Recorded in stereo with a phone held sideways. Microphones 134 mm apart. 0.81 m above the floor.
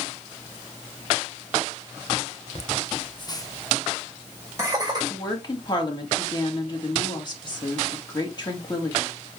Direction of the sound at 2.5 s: 55° left (ahead or behind).